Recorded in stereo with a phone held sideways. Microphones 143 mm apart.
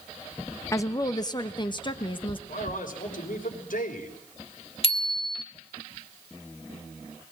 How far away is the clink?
No clink in this recording.